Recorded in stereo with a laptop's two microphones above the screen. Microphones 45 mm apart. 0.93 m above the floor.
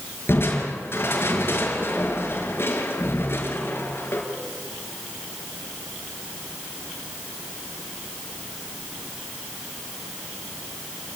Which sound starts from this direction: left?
Crushing, at 0.3 s.